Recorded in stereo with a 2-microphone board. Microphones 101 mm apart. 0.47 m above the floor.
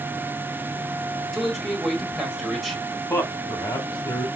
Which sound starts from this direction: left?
A man speaking, at 3.1 s.